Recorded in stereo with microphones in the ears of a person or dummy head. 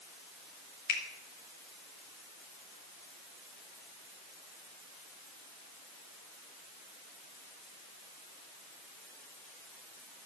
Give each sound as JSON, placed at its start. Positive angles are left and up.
{"t": 0.9, "sound": "a finger snap", "side_deg": 60, "distance_m": 2.0}